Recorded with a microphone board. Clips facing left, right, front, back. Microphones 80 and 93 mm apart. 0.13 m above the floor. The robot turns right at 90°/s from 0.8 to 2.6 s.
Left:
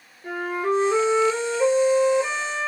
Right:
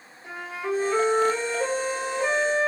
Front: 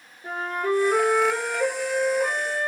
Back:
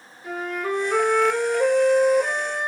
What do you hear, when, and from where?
0.2 s a flute: 50° left, 1.3 m; by 2.7 s 150° right, 1.3 m